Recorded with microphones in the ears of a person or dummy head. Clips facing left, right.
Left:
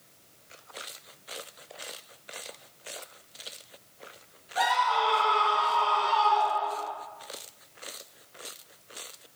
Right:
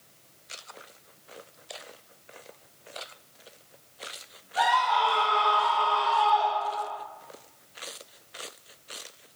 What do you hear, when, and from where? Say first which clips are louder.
4.6 s a scream: right 2 dB; 30° left (ahead or behind), 1.1 m; by 6.9 s 85° left, 1.3 m